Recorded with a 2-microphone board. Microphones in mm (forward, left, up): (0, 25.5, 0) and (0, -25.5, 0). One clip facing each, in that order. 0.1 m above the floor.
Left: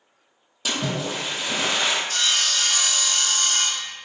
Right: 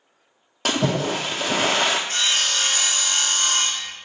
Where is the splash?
60° right (ahead or behind), 0.6 m.